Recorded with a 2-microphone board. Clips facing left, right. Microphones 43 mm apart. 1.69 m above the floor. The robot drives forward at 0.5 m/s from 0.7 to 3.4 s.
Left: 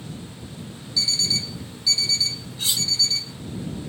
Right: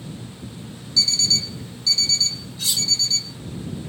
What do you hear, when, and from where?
1.0 s an alarm clock: 15° left (ahead or behind), 0.8 m; by 3.3 s 5° left (ahead or behind), 1.6 m
2.6 s cutlery clinking: 25° left (ahead or behind), 1.7 m